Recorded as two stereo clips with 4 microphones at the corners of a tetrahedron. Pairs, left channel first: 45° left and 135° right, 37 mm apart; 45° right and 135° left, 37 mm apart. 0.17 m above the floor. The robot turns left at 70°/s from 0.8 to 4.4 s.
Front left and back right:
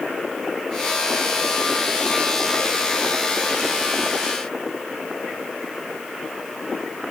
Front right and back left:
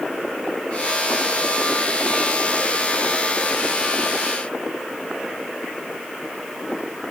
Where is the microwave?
I don't hear a microwave.